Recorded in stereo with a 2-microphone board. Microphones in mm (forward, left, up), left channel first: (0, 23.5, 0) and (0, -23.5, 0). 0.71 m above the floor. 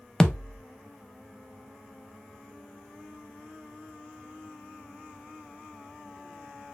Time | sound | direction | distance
0.2 | a thud | 15° left (ahead or behind) | 0.6 m